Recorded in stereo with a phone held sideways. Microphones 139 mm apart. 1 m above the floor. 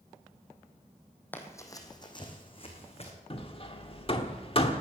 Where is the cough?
No cough in this recording.